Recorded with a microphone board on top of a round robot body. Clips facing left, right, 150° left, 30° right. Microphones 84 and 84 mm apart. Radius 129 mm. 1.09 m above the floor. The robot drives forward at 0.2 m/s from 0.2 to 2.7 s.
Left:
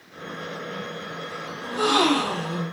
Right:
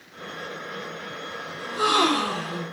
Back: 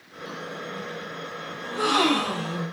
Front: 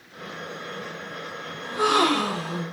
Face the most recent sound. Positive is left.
turn(degrees=135)